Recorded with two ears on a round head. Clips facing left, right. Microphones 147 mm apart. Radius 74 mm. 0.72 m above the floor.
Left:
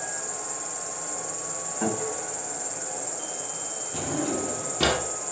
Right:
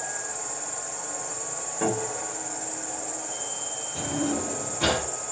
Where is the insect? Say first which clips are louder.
Even; 85° left, 0.9 m.